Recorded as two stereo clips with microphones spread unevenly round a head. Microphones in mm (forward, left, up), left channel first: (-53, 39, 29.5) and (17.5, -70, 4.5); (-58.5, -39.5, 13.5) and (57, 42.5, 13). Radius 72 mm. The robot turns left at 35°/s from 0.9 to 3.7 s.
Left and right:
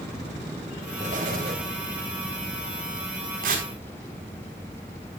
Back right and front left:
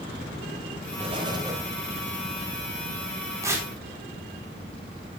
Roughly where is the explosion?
Ahead.